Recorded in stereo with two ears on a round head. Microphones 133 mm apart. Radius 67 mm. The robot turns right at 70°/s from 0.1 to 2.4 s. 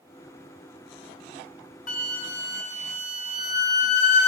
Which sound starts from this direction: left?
A flute, at 1.9 s.